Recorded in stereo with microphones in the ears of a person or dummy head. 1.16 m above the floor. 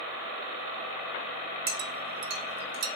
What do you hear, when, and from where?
1.7 s a clink: 65° right (ahead or behind), 0.8 m